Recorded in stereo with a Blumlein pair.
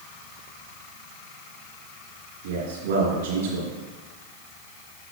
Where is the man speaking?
60° right, 2.5 m.